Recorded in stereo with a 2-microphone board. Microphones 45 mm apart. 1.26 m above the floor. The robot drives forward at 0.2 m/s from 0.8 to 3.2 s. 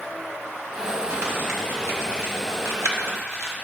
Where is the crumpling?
60° right (ahead or behind), 1.1 m; by 3.5 s 65° right (ahead or behind), 1.1 m.